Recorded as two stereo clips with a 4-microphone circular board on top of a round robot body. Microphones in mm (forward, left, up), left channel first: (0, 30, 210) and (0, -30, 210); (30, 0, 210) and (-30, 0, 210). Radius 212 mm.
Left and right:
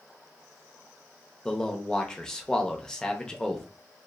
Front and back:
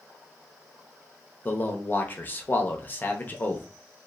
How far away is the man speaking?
About 0.8 m.